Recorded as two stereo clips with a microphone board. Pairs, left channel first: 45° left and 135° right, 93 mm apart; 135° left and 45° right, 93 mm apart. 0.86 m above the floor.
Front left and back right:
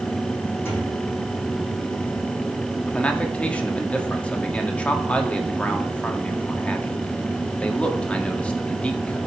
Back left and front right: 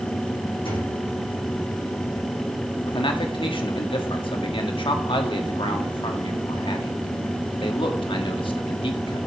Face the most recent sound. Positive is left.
turn(degrees=120)